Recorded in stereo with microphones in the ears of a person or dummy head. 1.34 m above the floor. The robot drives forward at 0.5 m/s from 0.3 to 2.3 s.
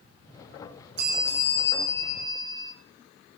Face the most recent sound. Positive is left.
turn(degrees=-65)  # may be behind; listen again after turning